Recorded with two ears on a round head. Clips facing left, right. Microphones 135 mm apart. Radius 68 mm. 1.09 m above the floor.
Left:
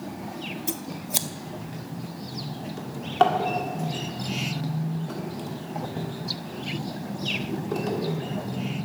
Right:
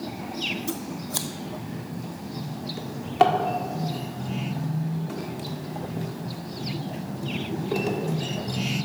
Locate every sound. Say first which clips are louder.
0.7 s scissors: right 2 dB; 20° left (ahead or behind), 0.6 m
2.8 s a drawer: right 1 dB; 10° right (ahead or behind), 1.4 m